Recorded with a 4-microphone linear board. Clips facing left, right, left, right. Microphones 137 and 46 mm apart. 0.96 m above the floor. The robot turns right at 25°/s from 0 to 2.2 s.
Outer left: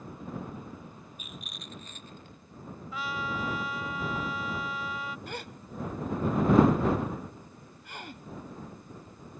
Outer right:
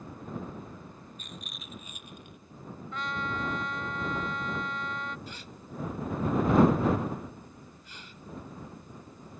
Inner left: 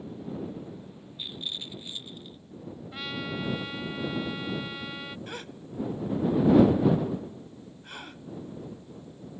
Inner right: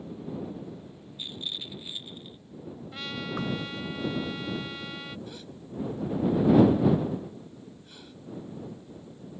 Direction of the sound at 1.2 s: 5° left (ahead or behind).